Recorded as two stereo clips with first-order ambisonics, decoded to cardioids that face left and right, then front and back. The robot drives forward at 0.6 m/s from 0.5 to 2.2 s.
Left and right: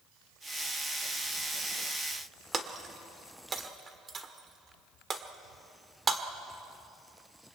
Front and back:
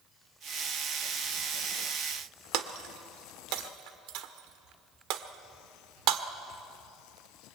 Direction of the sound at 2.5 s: 160° right.